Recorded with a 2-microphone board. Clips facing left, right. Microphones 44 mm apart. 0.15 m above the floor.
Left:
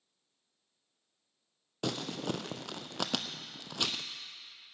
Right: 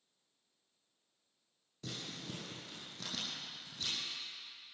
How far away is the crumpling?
About 0.8 m.